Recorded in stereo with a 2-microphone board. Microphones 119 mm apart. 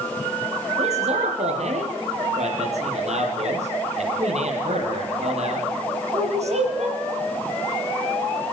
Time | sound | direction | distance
0.8 | a man speaking | 70° right (ahead or behind) | 5.5 m